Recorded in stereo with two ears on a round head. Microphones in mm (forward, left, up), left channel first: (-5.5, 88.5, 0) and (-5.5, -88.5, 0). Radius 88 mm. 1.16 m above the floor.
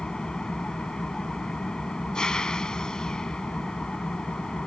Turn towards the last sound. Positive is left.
turn(degrees=5)  # may be behind; listen again after turning